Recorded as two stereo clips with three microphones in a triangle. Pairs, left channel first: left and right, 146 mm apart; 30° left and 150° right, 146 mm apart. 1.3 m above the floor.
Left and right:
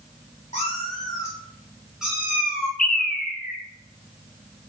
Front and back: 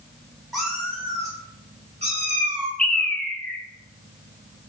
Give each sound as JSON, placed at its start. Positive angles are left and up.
{"t": 0.5, "sound": "a cat meowing", "azimuth_deg": 120, "distance_m": 1.3}
{"t": 2.8, "sound": "a bird", "azimuth_deg": 110, "distance_m": 0.6}